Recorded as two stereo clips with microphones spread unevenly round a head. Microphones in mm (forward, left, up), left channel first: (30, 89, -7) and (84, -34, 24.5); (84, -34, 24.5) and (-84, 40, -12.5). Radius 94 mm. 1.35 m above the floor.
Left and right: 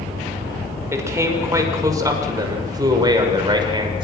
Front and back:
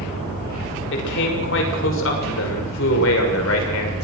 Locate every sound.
0.9 s a man speaking: 5° left, 6 m; by 4.0 s 10° right, 6.5 m